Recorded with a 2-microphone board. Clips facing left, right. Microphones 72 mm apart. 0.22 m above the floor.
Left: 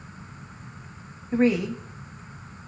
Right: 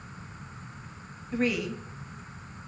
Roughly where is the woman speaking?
Left.